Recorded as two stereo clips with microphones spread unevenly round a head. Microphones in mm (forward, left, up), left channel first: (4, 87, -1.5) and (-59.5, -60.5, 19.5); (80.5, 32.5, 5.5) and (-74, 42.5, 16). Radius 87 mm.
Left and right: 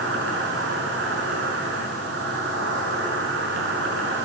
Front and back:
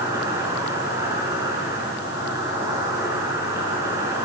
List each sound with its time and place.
0.0 s an insect: 110° right, 7 m